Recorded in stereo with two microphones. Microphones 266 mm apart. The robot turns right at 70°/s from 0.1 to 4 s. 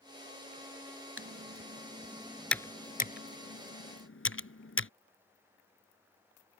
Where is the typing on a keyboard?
55° right (ahead or behind); by 4.9 s 50° left (ahead or behind).